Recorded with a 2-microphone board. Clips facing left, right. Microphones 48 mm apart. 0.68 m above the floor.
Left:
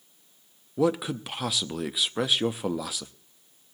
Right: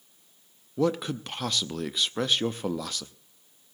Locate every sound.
0.8 s a man speaking: 5° left (ahead or behind), 0.7 m